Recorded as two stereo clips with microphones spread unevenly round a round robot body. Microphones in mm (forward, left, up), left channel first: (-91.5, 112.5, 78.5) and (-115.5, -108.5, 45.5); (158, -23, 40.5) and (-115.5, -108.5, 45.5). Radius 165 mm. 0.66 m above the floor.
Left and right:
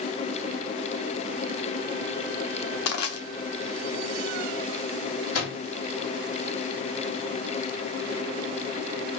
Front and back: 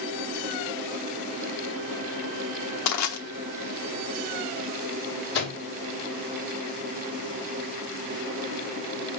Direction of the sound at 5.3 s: 70° left.